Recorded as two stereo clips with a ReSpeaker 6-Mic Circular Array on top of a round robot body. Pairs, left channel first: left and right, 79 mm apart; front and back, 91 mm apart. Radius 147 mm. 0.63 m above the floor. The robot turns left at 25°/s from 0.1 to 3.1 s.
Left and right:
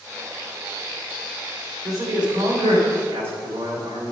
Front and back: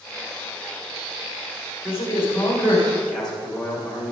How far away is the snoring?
No snoring in this recording.